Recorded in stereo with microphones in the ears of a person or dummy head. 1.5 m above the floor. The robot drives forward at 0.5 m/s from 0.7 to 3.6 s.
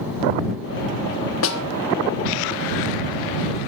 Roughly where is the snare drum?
Left.